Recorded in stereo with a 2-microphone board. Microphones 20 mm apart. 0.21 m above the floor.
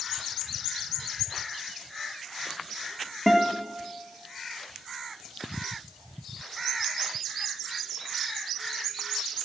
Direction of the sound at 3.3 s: Centre (ahead or behind).